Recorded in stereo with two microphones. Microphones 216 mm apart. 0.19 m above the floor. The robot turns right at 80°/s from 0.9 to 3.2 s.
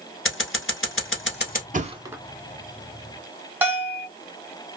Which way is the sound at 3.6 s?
10° right (ahead or behind).